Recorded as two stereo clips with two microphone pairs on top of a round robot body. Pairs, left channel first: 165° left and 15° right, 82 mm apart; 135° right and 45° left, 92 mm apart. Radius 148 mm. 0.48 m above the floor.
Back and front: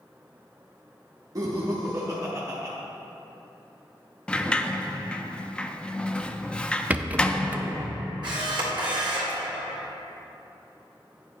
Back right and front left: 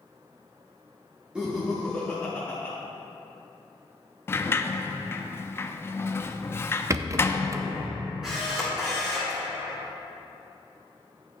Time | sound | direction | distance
1.4 | laughter | 25° right | 1.0 m
4.3 | a sliding door | 100° right | 0.5 m
6.9 | a rattle | 30° left | 0.6 m
8.2 | a camera shutter | 40° right | 2.0 m